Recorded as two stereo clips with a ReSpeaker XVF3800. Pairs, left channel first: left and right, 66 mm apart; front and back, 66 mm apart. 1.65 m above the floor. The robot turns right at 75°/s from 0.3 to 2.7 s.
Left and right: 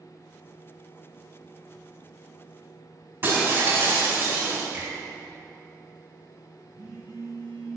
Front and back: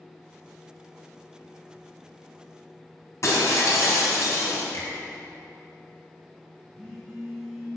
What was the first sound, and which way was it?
Breaking glass, 40° right.